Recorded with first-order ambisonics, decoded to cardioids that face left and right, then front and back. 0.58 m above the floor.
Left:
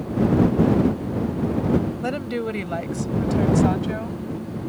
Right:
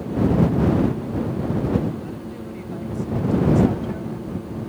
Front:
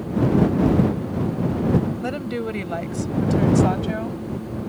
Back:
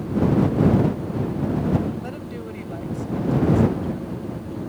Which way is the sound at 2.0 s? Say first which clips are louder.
Left 8 dB, front 7 dB; 65° left.